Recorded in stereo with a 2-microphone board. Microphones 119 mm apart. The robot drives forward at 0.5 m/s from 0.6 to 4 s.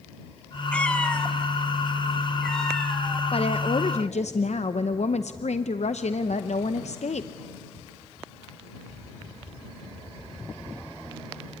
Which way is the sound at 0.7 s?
10° left (ahead or behind).